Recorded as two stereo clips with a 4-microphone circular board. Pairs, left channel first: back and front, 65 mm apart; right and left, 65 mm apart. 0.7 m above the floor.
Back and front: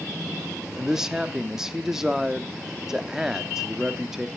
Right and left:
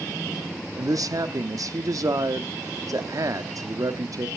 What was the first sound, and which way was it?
A man speaking, 85° left.